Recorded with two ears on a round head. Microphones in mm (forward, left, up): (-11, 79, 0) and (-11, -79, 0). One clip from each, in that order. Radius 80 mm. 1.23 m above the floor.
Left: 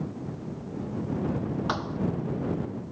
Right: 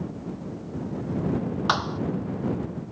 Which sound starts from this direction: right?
A thud, at 1.7 s.